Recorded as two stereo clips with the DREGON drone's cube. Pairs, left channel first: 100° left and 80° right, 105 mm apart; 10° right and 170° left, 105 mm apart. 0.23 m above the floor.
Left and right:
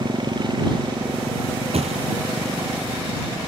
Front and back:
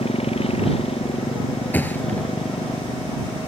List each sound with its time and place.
0.0 s a motorcycle: 35° right
1.7 s a thud: 85° right